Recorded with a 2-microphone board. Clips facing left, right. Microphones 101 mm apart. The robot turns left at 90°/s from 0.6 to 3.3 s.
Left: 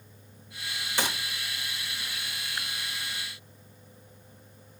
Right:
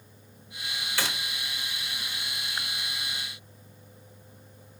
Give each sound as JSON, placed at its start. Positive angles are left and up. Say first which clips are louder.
{"t": 1.0, "sound": "a gunshot", "louder": "left 2 dB", "side_deg": 20, "distance_m": 1.2}